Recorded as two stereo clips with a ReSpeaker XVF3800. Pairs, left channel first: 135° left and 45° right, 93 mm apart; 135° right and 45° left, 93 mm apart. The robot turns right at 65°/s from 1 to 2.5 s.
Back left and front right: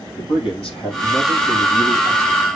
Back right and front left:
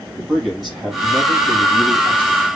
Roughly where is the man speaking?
Behind left.